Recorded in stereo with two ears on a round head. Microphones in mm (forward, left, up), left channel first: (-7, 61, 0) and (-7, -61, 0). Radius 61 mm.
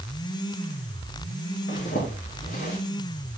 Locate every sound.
1.7 s a zipper: 60° left (ahead or behind), 4.5 m